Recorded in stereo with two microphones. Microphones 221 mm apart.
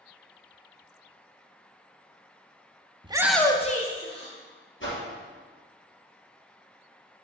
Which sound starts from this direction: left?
A whoosh, at 4.8 s.